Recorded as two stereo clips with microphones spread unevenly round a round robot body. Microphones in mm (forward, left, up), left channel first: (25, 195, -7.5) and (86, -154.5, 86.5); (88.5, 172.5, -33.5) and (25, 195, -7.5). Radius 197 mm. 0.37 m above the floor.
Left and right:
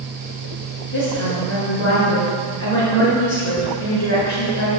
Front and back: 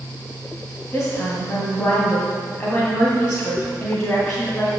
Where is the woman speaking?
50° left, 2.5 m.